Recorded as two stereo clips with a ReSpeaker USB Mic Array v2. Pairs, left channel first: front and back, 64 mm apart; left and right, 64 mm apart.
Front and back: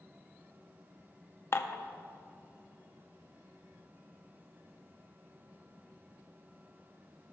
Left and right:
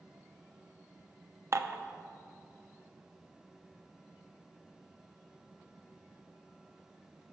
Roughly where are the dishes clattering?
Ahead right.